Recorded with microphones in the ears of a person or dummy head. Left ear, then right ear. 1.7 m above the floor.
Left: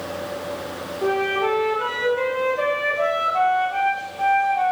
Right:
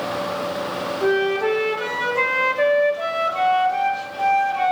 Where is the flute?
35° right (ahead or behind), 3.5 m.